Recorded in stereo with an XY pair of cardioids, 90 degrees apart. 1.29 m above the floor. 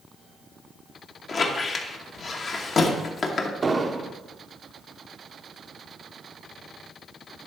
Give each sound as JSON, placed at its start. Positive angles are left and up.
{"t": 1.3, "sound": "a squeak", "azimuth_deg": 50, "distance_m": 1.0}
{"t": 3.6, "sound": "an explosion", "azimuth_deg": -35, "distance_m": 0.6}